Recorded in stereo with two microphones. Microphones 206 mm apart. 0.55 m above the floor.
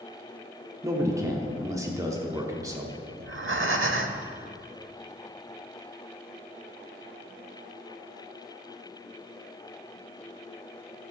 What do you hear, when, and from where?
0.8 s a man speaking: 15° right (ahead or behind), 1.0 m
3.2 s breathing: 75° right (ahead or behind), 0.7 m